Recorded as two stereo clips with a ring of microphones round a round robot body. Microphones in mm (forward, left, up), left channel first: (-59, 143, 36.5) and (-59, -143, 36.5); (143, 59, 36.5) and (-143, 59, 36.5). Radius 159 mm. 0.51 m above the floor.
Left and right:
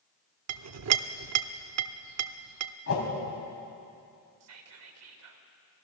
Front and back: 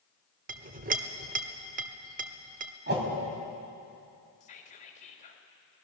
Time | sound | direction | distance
0.5 | a clink | 120° right | 0.8 m
2.9 | a whoosh | 125° left | 5 m
4.4 | whispering | 65° right | 2.5 m